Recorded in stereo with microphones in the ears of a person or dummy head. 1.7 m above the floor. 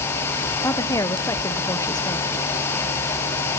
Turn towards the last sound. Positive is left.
turn(degrees=15)  # may be behind; listen again after turning